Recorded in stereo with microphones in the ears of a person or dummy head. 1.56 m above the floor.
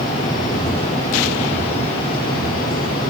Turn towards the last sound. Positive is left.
No sound to turn to.